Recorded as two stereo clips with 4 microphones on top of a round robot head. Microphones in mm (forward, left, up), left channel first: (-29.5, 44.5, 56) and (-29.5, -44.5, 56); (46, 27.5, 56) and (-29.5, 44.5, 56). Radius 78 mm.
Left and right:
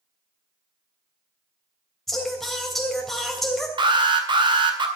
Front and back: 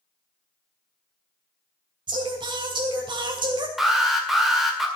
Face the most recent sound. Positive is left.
turn(degrees=-105)